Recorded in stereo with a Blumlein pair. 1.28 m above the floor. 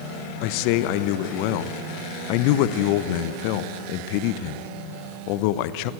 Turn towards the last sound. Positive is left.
turn(degrees=45)